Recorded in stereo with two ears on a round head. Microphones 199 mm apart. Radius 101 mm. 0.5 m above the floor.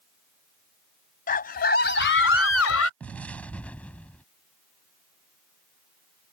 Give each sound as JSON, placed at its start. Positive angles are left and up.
{"t": 1.3, "sound": "a scream", "side_deg": 40}
{"t": 3.0, "sound": "an explosion", "side_deg": 5}